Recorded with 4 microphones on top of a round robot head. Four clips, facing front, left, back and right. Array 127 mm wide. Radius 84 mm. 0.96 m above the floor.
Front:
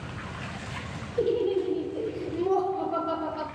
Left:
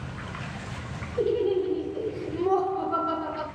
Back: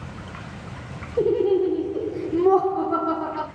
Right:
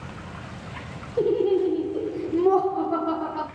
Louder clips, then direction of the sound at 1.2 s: Right 3 dB, back 6 dB; 140° right.